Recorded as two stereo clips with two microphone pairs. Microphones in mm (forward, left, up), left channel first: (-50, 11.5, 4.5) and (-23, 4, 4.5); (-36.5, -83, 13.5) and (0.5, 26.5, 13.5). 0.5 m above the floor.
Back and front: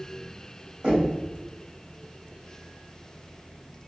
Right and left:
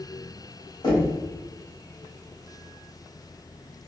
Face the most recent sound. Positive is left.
turn(degrees=-65)